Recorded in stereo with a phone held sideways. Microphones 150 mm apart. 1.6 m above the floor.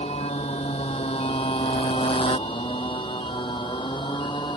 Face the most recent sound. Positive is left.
turn(degrees=30)  # may be behind; listen again after turning